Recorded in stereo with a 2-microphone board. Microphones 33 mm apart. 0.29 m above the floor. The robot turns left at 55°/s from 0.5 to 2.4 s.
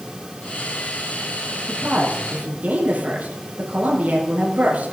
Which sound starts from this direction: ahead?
A woman speaking, at 1.7 s.